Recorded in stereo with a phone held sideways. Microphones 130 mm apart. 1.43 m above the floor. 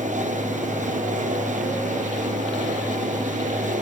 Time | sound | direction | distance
0.0 | a fan | 80° right | 0.7 m